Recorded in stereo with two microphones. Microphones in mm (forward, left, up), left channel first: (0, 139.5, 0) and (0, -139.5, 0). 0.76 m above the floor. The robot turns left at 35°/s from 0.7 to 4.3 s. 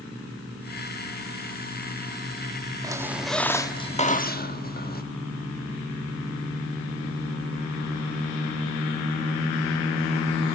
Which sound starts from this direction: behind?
A squeak, at 2.8 s.